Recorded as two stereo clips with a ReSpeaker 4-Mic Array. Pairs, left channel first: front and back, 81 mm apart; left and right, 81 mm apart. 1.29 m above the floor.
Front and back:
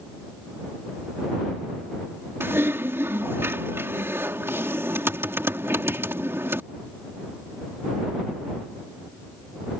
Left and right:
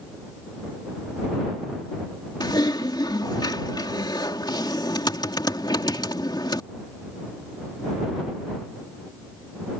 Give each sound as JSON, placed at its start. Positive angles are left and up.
{"t": 2.4, "sound": "typing on a keyboard", "azimuth_deg": 120}